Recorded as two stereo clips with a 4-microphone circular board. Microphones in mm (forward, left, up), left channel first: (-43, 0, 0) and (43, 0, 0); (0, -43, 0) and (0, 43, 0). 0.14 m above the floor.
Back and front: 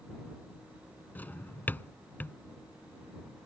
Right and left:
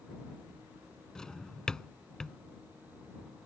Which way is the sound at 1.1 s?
160° right.